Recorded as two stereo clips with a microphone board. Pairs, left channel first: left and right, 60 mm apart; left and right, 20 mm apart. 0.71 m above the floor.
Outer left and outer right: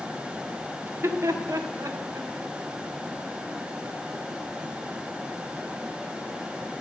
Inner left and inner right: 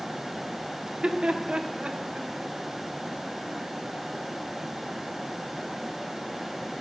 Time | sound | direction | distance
0.8 | laughter | 35° right (ahead or behind) | 0.9 m